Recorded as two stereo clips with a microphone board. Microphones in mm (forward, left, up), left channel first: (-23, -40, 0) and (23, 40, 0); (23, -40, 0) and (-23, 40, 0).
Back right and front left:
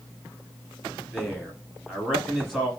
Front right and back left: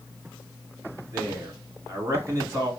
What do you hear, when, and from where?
1.1 s a man speaking: 145° left, 1.7 m